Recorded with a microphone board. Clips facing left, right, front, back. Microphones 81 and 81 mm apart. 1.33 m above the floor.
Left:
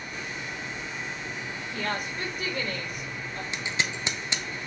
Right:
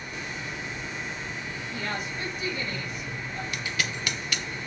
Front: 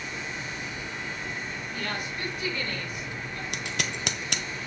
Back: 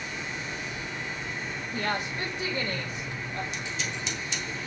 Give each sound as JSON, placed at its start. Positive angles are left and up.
{"t": 1.7, "sound": "a woman speaking", "azimuth_deg": 115, "distance_m": 4.0}
{"t": 3.5, "sound": "scissors", "azimuth_deg": 25, "distance_m": 0.8}